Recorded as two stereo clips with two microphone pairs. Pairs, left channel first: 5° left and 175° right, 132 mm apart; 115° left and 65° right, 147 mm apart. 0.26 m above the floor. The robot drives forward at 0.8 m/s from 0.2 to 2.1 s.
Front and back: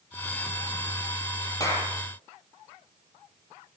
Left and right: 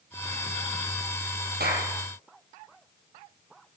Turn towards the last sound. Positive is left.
turn(degrees=-65)